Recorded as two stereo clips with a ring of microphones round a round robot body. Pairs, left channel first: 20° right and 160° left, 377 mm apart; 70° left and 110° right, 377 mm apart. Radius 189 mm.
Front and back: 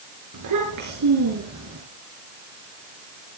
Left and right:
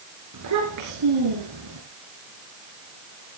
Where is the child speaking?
160° right, 4.5 m; by 1.8 s 150° right, 4 m.